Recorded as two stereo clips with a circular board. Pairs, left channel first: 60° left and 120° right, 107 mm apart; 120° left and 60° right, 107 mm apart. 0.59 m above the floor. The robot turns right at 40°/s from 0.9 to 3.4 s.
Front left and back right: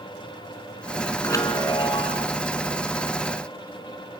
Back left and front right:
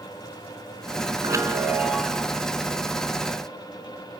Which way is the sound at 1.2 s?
5° right.